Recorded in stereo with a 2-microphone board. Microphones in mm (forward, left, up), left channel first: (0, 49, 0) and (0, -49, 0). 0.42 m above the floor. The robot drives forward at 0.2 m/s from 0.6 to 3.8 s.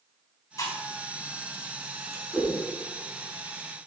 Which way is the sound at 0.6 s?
35° left (ahead or behind).